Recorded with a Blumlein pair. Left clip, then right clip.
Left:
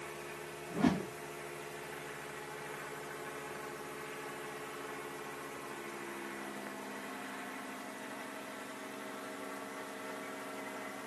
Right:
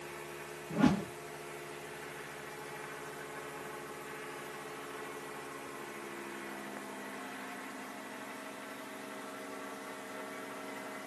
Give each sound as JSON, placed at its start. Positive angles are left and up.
{"t": 0.7, "sound": "a whoosh", "azimuth_deg": -40, "distance_m": 1.5}